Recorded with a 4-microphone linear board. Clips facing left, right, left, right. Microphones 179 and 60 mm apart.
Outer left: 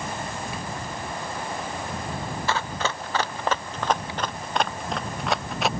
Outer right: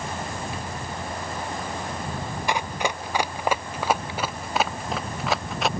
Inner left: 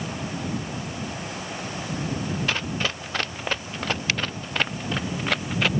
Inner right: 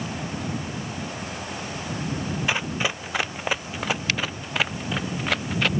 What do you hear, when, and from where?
2.5 s running footsteps: 15° right (ahead or behind); by 5.7 s centre (ahead or behind)